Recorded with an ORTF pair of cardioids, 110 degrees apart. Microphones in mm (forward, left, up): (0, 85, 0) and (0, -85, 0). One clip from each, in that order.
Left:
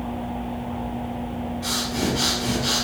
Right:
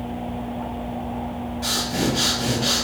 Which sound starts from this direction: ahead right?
Breathing, at 1.6 s.